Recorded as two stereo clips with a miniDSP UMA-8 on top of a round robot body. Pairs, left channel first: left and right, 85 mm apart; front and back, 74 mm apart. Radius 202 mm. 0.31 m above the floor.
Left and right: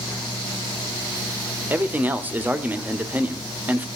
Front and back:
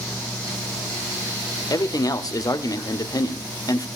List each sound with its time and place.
1.7 s a man speaking: 25° right, 1.6 m